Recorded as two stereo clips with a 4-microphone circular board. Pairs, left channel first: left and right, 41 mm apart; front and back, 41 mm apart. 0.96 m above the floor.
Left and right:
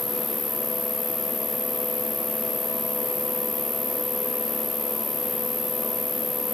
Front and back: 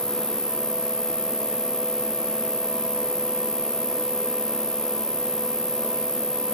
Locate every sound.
0.0 s an insect: 5° right